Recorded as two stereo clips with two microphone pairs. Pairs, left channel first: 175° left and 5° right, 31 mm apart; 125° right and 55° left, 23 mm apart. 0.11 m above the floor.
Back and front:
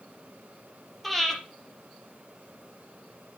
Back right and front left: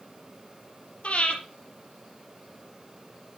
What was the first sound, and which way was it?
Breathing, 100° right.